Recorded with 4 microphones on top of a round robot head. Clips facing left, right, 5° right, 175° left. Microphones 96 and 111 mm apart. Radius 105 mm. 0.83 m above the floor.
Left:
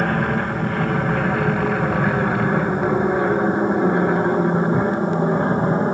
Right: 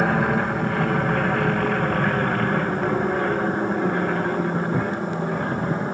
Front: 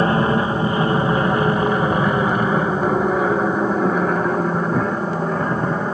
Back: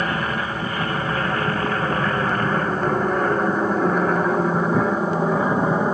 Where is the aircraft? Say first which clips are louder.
Even, front 7 dB; 10° right; by 5.9 s 110° left.